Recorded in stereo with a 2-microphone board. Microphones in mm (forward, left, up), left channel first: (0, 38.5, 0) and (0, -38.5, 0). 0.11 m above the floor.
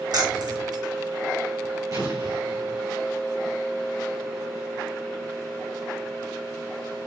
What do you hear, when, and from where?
0.1 s keys jangling: 60° right (ahead or behind), 3.5 m
1.9 s an explosion: 45° right (ahead or behind), 2.5 m